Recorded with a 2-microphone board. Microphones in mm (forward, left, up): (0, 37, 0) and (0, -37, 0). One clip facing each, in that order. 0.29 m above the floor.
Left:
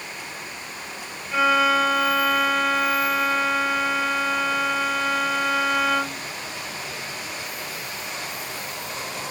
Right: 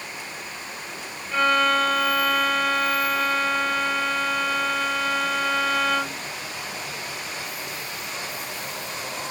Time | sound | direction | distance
1.3 | a violin | 5° left (ahead or behind) | ?